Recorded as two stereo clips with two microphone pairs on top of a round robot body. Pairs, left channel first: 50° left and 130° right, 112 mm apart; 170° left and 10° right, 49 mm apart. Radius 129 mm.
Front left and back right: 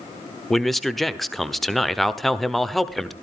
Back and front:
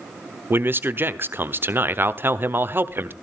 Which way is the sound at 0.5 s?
30° right.